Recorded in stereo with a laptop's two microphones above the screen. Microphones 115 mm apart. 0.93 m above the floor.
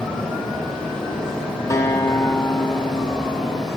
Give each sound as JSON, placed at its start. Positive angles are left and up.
{"t": 0.0, "sound": "a fan", "side_deg": 5, "distance_m": 4.0}
{"t": 1.7, "sound": "a guitar", "side_deg": 25, "distance_m": 0.7}